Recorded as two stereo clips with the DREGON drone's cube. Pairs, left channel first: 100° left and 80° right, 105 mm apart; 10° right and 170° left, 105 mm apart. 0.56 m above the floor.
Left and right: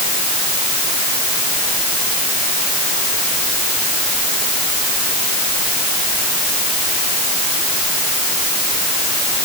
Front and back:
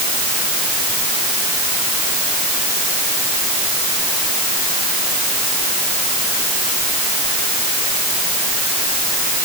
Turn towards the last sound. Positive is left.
No sound to turn to.